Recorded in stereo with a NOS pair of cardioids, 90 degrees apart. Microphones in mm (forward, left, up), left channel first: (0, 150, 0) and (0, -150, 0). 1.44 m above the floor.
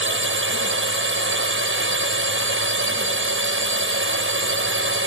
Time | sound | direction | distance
0.0 | a drone | 40° right | ?